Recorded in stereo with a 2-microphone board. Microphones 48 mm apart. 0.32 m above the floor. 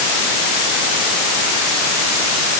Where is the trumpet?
No trumpet in this recording.